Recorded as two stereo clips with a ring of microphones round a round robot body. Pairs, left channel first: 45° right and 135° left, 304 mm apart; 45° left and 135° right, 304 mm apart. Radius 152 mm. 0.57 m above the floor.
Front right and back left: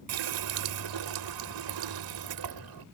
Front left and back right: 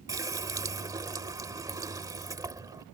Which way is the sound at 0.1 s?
145° left.